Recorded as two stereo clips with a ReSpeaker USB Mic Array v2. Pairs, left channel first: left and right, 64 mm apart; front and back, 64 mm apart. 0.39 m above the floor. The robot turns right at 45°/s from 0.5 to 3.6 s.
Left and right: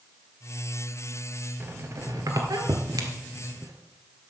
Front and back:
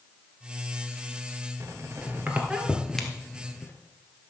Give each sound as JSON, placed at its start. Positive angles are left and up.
{"t": 1.6, "sound": "a squeak", "azimuth_deg": -145, "distance_m": 1.6}